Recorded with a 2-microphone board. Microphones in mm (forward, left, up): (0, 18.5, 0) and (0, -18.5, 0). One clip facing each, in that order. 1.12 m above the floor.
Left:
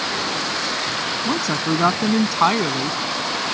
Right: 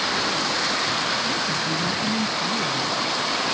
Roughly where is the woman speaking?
Left.